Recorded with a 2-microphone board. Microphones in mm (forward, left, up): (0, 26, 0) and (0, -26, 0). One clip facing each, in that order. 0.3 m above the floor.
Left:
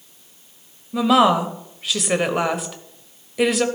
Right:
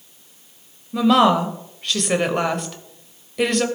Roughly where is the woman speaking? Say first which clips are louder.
Even; centre.